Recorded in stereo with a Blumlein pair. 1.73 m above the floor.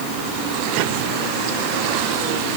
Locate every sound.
Only background noise.